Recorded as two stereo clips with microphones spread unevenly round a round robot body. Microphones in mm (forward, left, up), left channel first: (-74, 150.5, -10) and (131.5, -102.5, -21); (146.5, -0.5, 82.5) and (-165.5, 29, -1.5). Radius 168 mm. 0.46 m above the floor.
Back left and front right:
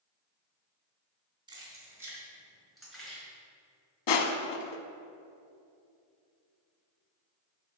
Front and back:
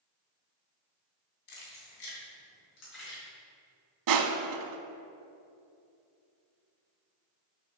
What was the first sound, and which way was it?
Keys jangling, 25° left.